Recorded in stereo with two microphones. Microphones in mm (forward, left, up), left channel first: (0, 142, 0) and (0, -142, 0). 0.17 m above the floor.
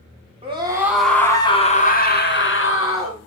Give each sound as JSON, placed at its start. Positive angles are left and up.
{"t": 0.4, "sound": "a scream", "side_deg": -20, "distance_m": 1.6}